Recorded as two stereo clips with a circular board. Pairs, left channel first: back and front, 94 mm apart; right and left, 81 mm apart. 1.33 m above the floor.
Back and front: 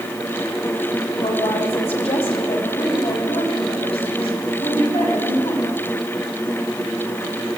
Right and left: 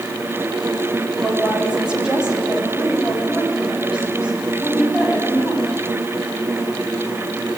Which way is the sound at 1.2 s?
170° left.